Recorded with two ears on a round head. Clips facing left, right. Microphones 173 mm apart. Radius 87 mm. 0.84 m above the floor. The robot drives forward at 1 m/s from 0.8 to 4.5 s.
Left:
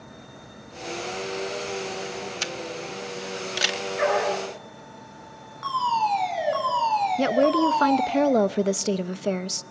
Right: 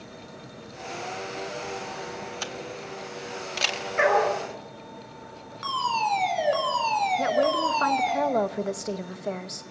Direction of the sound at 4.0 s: 70° right (ahead or behind).